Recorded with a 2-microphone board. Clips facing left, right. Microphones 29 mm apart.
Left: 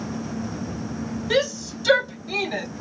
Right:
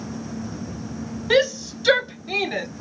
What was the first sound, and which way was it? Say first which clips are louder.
A shout: right 4 dB; 20° right (ahead or behind).